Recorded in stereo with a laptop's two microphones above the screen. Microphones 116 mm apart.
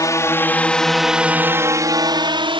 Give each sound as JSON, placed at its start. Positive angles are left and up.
{"t": 0.0, "sound": "a drone", "side_deg": 30}